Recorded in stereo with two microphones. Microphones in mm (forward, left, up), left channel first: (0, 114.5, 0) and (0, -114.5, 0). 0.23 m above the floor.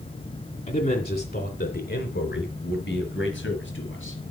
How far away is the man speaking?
About 1.9 m.